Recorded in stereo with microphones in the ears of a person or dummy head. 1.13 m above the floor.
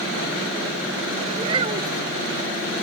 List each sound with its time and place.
1.4 s a child speaking: 30° right (ahead or behind)